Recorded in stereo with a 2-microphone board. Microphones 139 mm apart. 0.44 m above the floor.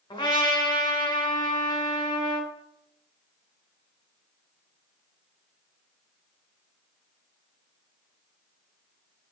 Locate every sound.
0.1 s a trumpet: 35° left (ahead or behind), 2 m